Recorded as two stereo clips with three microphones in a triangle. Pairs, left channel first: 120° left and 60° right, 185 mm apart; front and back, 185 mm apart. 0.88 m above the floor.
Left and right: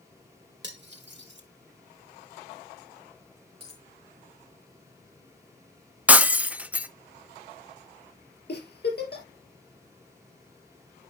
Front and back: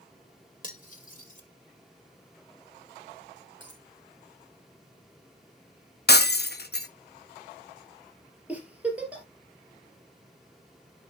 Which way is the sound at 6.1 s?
25° left.